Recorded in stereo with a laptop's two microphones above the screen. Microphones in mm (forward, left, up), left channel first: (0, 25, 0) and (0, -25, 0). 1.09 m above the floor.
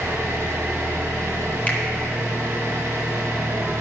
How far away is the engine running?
About 4.5 m.